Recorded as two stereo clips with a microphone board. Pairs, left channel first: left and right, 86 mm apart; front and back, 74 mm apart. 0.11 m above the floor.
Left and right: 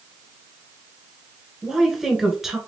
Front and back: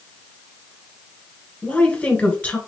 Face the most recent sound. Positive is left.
turn(degrees=-15)